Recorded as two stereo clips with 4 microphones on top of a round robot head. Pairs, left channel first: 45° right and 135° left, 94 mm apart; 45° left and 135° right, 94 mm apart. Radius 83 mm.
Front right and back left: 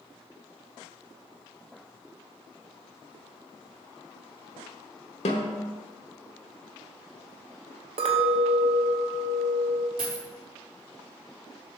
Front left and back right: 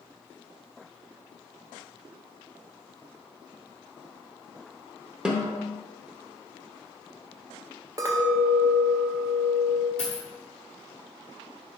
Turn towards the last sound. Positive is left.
turn(degrees=120)